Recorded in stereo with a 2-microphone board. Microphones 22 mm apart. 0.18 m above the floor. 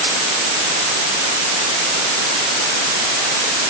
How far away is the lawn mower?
No lawn mower in this recording.